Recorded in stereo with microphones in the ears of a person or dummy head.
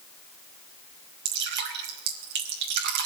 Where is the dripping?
60° right (ahead or behind), 2 m.